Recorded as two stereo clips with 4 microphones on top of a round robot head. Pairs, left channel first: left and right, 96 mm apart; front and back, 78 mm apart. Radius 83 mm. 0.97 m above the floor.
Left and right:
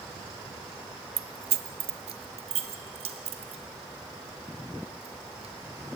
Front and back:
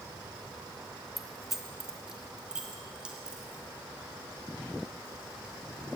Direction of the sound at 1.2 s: 90° right.